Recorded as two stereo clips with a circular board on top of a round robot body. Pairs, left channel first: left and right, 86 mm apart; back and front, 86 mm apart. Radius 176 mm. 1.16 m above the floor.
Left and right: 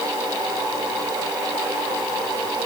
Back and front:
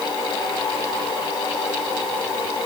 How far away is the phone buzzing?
No phone buzzing in this recording.